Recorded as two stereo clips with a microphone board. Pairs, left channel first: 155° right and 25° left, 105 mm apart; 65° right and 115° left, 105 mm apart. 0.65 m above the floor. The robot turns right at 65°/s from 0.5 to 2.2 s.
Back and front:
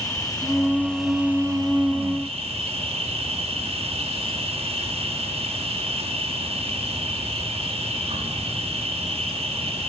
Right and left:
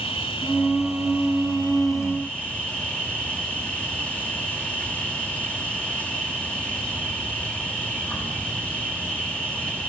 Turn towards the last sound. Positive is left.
turn(degrees=10)